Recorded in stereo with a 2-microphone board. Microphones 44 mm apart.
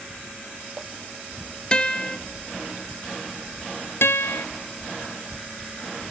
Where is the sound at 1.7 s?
25° left (ahead or behind), 1.0 m.